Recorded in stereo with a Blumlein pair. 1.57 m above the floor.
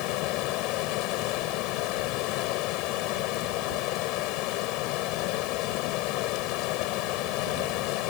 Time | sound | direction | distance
0.0 | running water | 40° left | ?